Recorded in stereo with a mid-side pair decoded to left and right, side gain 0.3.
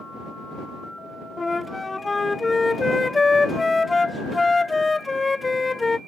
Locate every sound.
1.4 s a flute: 25° left